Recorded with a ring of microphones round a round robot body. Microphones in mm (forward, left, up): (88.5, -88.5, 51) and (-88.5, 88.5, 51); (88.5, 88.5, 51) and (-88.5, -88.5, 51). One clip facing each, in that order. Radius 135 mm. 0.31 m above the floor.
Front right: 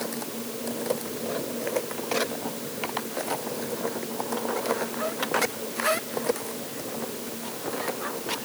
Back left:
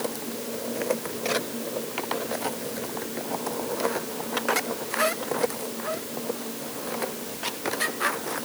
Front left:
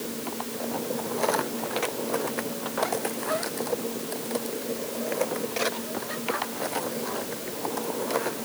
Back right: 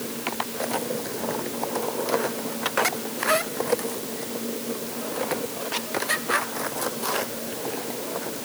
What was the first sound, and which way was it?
Only background noise.